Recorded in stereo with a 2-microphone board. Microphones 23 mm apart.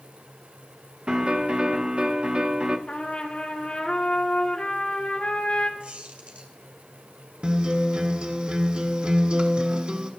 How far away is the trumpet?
About 1.8 m.